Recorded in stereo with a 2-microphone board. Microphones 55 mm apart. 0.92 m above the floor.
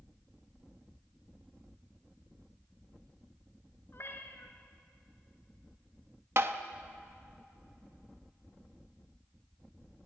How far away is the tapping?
About 1.1 m.